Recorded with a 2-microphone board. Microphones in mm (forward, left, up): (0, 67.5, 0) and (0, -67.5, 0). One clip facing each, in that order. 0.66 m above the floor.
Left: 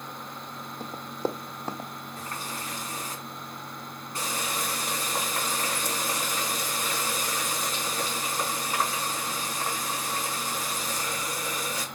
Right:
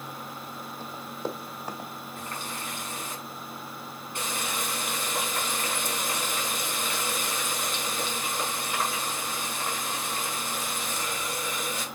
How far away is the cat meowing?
I don't hear a cat meowing.